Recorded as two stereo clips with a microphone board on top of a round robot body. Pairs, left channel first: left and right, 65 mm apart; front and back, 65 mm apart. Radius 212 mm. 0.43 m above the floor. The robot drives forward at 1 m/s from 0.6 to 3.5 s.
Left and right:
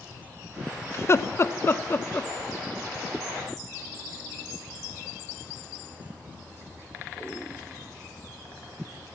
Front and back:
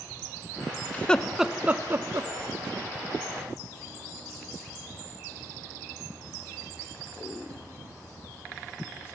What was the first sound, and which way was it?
Laughter, 55° left.